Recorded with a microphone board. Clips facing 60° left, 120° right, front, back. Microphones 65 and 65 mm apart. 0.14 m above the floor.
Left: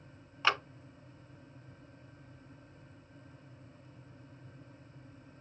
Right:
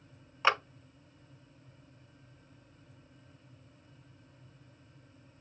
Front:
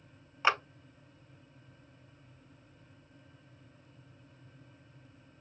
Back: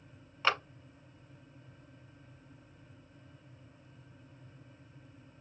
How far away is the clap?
About 0.9 m.